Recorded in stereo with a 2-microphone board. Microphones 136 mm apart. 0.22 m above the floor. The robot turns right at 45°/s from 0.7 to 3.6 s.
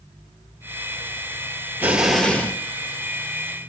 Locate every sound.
1.8 s an explosion: 15° right, 1.2 m; by 2.6 s 20° left, 1.2 m